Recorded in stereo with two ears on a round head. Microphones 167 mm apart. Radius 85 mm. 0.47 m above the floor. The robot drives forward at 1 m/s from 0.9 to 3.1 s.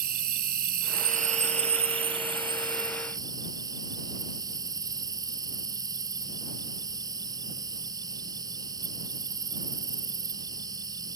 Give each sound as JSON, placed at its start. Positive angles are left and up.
{"t": 0.0, "sound": "an insect", "side_deg": -50}